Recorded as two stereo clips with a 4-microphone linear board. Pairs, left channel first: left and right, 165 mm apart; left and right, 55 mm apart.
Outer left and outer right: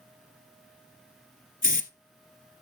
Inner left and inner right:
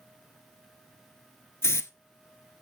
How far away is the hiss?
About 0.6 m.